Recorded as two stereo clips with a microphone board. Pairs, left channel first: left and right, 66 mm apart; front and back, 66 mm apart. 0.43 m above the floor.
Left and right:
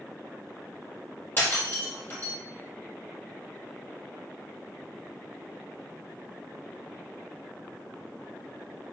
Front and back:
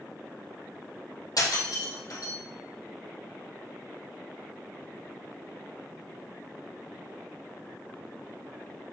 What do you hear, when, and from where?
1.4 s breaking glass: 30° left, 4.5 m